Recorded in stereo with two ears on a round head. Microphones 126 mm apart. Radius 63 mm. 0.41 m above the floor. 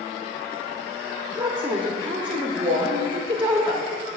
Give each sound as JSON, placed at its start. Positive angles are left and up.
{"t": 1.4, "sound": "a woman speaking", "side_deg": -30, "distance_m": 0.9}